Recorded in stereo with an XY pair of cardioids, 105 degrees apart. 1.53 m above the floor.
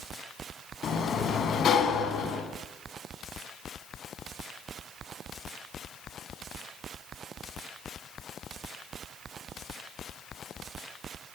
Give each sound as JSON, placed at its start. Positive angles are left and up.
{"t": 0.8, "sound": "a sliding door", "azimuth_deg": 55, "distance_m": 4.5}